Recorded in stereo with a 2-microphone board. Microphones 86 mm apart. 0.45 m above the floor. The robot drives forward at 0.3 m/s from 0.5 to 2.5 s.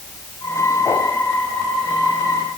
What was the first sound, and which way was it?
Only background noise.